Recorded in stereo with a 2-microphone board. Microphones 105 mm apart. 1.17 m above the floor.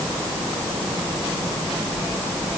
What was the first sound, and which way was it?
Only background noise.